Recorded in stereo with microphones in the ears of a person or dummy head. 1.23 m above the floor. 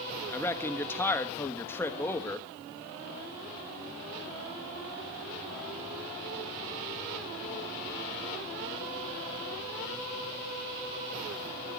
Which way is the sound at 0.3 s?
10° left (ahead or behind).